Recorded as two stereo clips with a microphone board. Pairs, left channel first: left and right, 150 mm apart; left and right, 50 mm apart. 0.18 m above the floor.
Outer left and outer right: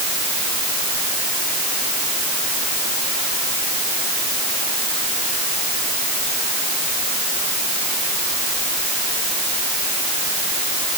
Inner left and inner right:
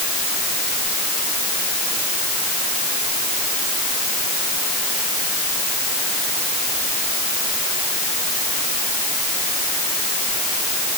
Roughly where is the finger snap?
No finger snap in this recording.